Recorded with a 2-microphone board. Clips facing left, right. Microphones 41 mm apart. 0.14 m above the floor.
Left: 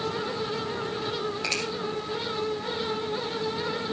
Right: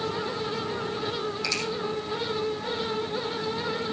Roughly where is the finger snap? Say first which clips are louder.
Left 1 dB; left.